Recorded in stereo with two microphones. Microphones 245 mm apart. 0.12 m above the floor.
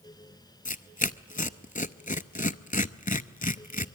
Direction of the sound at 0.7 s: 35° left (ahead or behind).